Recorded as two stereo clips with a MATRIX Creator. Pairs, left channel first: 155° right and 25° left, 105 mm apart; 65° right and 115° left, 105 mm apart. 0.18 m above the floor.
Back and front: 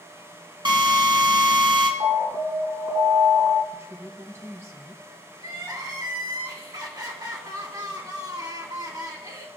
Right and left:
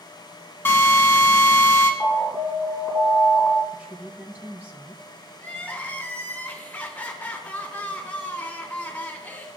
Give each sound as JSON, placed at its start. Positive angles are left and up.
{"t": 0.7, "sound": "a drill", "azimuth_deg": 0, "distance_m": 1.7}
{"t": 2.0, "sound": "an alarm", "azimuth_deg": 5, "distance_m": 2.5}
{"t": 3.7, "sound": "a woman speaking", "azimuth_deg": 50, "distance_m": 1.5}
{"t": 5.4, "sound": "crying", "azimuth_deg": 0, "distance_m": 2.5}